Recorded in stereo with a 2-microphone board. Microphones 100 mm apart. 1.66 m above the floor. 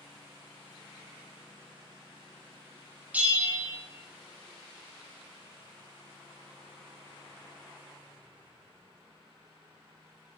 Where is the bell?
15° right (ahead or behind), 1.2 m.